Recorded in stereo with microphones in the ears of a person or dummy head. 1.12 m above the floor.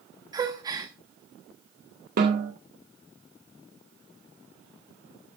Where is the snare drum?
55° right (ahead or behind), 1.7 m.